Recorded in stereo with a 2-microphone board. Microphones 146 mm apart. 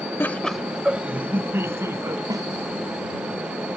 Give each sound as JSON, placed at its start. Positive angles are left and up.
{"t": 0.2, "sound": "laughter", "side_deg": 15}
{"t": 2.3, "sound": "a snare drum", "side_deg": -25}